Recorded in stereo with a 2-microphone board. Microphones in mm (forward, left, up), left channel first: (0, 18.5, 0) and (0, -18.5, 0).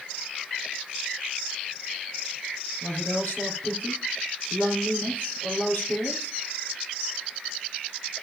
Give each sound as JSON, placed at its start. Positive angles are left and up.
{"t": 2.8, "sound": "a woman speaking", "side_deg": 50, "distance_m": 4.0}